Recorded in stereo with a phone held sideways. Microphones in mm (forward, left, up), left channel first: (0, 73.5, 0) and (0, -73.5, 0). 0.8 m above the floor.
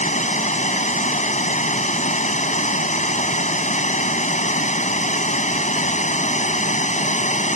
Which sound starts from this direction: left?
Running water, at 0.0 s.